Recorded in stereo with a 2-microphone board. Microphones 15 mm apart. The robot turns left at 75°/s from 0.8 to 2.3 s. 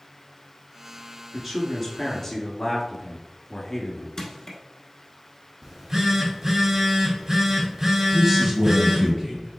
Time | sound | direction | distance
1.3 | a man speaking | 155° right | 1.4 m
4.2 | crushing | 35° left (ahead or behind) | 1.0 m
5.6 | a phone buzzing | 25° right (ahead or behind) | 1.8 m
8.1 | a man speaking | 10° right (ahead or behind) | 1.5 m